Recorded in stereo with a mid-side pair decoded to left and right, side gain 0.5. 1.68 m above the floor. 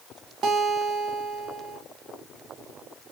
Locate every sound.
0.4 s a guitar: 60° right, 0.7 m